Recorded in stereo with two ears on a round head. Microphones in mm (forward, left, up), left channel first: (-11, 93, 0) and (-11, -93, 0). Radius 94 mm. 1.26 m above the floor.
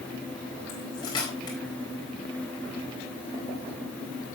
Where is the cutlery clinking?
20° left (ahead or behind), 4 m.